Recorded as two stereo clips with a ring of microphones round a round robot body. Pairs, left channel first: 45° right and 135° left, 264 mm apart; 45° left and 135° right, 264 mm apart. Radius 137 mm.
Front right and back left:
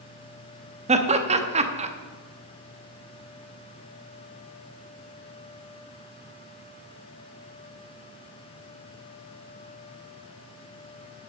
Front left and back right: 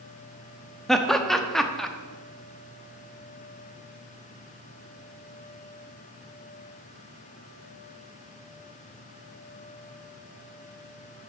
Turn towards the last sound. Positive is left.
turn(degrees=130)